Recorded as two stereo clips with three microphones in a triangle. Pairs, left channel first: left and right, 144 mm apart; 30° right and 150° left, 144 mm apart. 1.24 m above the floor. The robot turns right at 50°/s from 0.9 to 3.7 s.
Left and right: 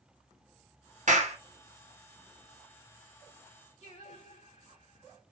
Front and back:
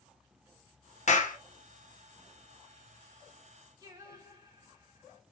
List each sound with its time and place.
1.1 s a clap: 60° right, 0.9 m; by 1.4 s 45° right, 0.9 m
3.8 s singing: 100° left, 1.5 m